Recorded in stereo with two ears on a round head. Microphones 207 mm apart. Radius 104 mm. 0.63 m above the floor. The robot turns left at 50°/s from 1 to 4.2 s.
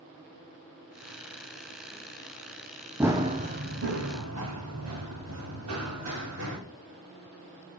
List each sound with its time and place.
3.0 s running footsteps: 10° right (ahead or behind), 0.9 m; by 6.6 s 80° right, 5.5 m